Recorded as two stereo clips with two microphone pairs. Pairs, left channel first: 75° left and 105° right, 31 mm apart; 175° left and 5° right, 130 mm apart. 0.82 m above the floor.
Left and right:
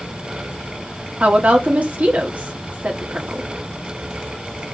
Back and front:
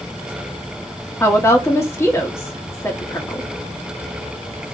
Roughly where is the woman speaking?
Behind right.